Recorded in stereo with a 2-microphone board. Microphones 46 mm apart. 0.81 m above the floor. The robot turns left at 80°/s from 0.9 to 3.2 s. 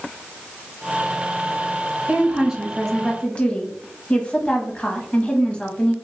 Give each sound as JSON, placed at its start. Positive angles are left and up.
{"t": 2.1, "sound": "a woman speaking", "azimuth_deg": -125, "distance_m": 0.8}